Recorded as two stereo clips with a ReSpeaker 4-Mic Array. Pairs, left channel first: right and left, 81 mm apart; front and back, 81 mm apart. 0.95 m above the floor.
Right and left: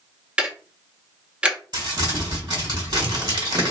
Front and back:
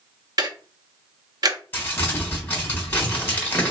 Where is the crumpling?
65° left, 1.3 m.